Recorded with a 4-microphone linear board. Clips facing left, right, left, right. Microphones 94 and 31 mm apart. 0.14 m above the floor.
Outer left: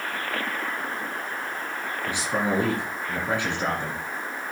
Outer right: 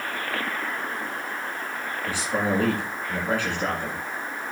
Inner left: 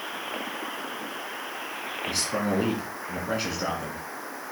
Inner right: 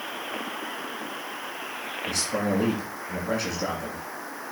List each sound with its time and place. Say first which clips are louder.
2.1 s a man speaking: even, inner right 1 dB; 20° left (ahead or behind), 1.7 m